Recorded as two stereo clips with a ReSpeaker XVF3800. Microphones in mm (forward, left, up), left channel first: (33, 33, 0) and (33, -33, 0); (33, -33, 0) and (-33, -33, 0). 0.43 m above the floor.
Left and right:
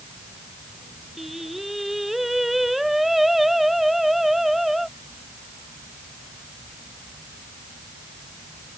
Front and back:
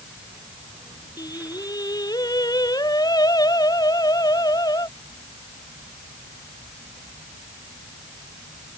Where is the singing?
Straight ahead.